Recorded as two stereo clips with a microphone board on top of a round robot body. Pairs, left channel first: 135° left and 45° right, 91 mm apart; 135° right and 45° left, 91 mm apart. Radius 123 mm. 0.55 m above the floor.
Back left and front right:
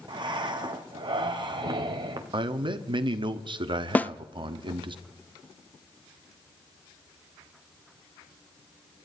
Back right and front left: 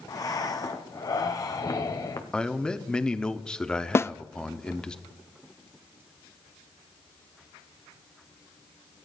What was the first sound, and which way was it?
Breathing, 85° right.